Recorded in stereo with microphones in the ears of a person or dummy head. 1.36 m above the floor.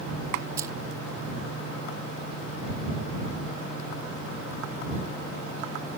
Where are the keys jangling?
20° right (ahead or behind).